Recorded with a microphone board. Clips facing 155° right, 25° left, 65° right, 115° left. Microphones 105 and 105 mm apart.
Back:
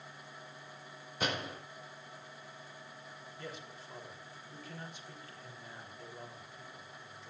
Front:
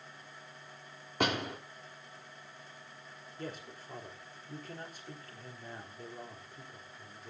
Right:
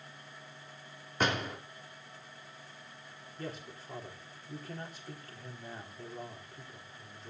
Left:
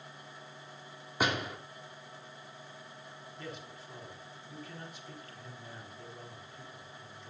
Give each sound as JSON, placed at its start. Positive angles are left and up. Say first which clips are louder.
{"t": 1.2, "sound": "a door slam", "louder": "front 4 dB, even", "azimuth_deg": 30, "distance_m": 3.0}
{"t": 3.4, "sound": "a man speaking", "louder": "front 4 dB, right 3 dB", "azimuth_deg": -20, "distance_m": 4.0}